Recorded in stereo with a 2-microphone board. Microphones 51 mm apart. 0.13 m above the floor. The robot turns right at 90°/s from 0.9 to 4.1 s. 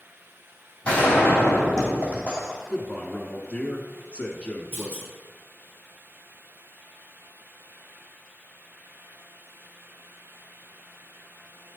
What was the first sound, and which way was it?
A gunshot, 25° left.